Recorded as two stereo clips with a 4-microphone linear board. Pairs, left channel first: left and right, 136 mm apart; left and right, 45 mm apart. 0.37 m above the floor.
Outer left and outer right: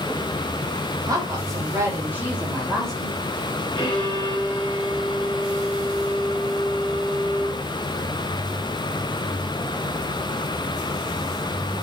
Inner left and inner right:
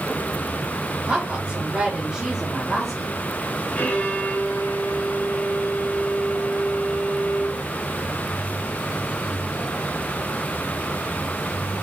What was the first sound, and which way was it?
A woman speaking, 30° right (ahead or behind).